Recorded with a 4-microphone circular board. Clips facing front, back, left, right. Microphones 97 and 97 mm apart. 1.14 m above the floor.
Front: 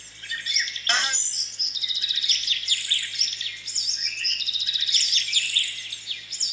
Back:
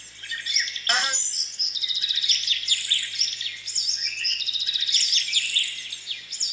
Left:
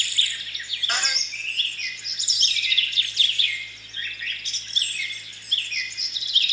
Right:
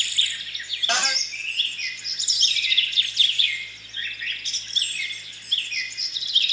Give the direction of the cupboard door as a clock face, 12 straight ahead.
3 o'clock.